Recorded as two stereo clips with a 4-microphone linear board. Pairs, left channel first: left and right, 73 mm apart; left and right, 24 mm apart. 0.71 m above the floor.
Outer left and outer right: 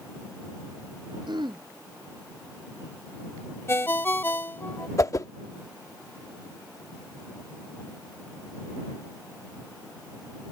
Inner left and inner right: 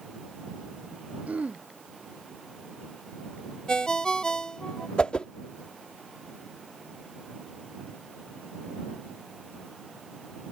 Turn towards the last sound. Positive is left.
turn(degrees=45)  # may be behind; listen again after turning